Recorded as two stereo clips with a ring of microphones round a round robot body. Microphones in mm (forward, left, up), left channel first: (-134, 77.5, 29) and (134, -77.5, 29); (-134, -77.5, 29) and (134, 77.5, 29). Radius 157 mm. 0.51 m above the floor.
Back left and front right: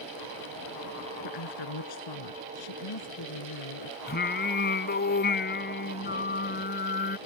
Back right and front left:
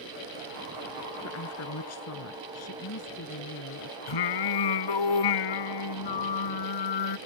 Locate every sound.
1.2 s a woman speaking: 165° left
4.1 s singing: 150° right